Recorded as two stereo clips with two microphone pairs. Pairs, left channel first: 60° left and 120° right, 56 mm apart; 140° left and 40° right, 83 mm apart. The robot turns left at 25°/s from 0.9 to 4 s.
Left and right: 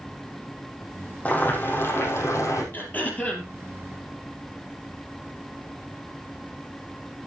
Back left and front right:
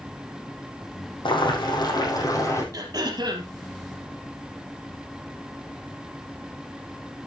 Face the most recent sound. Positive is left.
turn(degrees=-25)